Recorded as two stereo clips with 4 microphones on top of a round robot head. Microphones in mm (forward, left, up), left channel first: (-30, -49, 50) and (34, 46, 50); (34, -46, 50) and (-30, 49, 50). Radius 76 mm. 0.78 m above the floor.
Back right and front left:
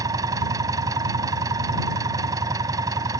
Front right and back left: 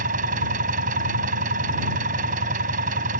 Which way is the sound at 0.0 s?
120° left.